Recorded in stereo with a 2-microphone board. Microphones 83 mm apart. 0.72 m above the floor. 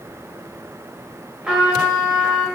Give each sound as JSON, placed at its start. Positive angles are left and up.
{"t": 1.4, "sound": "a trumpet", "side_deg": -10, "distance_m": 1.0}